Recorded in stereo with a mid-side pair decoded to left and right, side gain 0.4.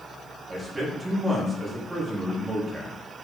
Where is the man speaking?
25° right, 3.5 m.